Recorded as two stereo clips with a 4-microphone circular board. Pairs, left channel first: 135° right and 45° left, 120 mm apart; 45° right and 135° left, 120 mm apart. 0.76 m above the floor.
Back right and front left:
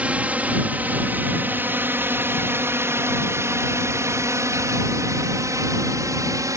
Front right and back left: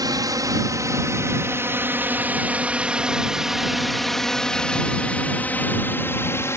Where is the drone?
115° left; by 6.6 s 5° left.